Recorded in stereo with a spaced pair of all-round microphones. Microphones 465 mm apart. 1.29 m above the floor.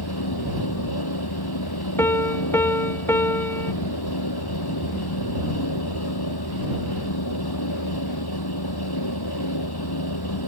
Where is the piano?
5° left (ahead or behind).